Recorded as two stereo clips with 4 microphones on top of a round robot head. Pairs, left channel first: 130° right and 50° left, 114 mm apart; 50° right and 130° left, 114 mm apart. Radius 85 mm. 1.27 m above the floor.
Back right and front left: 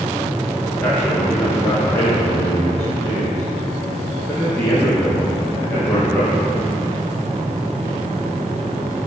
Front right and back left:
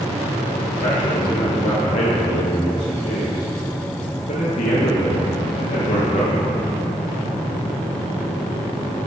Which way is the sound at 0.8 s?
60° right.